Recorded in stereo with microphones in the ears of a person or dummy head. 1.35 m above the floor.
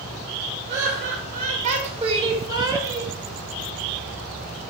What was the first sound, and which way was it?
Laughter, 60° right (ahead or behind).